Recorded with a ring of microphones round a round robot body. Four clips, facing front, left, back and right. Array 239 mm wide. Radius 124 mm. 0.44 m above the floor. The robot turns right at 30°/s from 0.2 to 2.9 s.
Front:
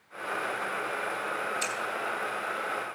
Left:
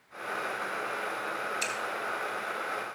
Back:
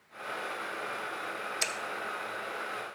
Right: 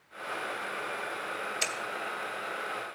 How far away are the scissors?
About 1.8 m.